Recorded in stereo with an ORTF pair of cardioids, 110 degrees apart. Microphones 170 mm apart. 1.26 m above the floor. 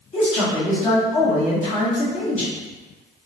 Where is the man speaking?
40° left, 1.4 m.